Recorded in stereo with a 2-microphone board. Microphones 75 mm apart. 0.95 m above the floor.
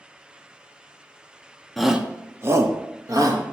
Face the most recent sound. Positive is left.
turn(degrees=-55)  # may be behind; listen again after turning